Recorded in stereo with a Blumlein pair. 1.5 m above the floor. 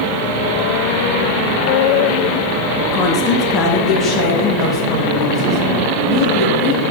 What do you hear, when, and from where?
2.9 s a woman speaking: 30° left, 1.5 m; by 6.8 s 20° left, 4 m